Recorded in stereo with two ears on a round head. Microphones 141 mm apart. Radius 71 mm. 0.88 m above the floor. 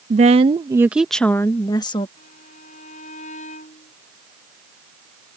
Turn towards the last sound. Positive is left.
turn(degrees=50)  # may be behind; listen again after turning